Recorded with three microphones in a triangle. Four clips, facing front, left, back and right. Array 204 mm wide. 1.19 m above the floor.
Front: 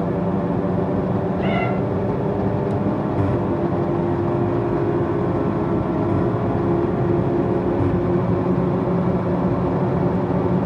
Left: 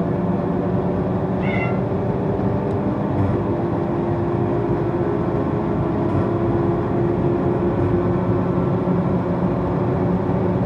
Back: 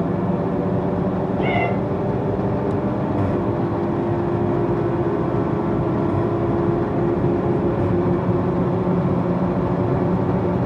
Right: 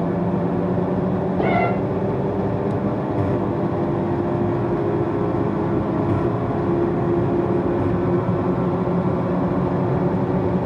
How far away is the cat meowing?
About 1.3 m.